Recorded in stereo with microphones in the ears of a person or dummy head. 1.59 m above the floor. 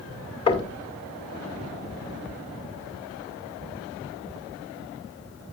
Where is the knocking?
30° left (ahead or behind), 1.8 m.